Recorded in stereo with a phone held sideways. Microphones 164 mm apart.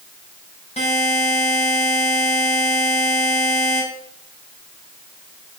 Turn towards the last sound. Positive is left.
turn(degrees=40)  # may be behind; listen again after turning